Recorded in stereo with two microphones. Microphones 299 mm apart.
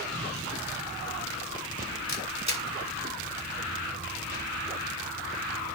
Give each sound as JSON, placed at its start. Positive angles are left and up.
{"t": 2.1, "sound": "a camera shutter", "side_deg": 60, "distance_m": 1.4}